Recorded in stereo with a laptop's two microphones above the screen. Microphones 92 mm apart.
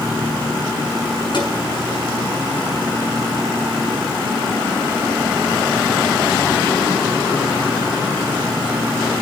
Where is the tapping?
60° left (ahead or behind), 6.5 m.